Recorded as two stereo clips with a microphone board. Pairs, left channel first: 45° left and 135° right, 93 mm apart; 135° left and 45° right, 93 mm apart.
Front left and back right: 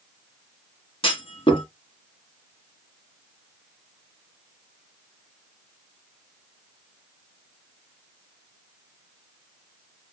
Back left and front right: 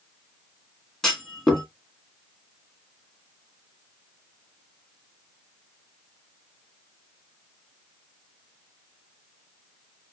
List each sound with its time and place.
1.0 s a clunk: 50° left, 1.7 m